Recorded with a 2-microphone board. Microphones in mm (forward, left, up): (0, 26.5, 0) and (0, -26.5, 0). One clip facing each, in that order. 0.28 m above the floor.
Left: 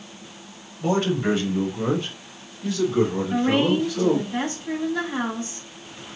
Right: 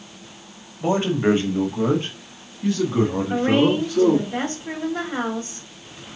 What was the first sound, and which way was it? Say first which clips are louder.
A man speaking: right 2 dB; 20° right (ahead or behind).